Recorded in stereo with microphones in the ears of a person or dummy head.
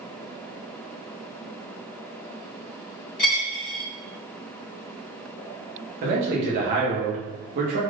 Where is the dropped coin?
25° left (ahead or behind), 1.0 m.